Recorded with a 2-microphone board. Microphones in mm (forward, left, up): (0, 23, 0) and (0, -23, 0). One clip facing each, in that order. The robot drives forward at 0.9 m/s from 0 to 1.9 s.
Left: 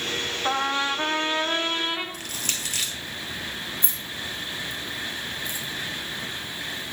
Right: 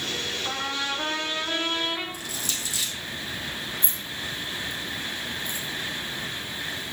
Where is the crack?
No crack in this recording.